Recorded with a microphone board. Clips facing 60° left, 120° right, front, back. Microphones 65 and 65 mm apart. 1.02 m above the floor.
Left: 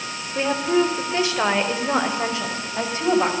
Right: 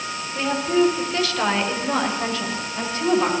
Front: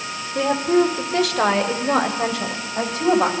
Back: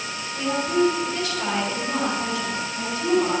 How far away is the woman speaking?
About 4.5 m.